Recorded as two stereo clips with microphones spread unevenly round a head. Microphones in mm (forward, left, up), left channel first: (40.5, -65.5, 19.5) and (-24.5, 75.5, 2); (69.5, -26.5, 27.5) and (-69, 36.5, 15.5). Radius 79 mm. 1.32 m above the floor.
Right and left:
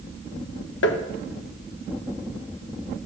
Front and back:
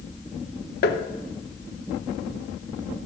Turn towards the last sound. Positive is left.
turn(degrees=-55)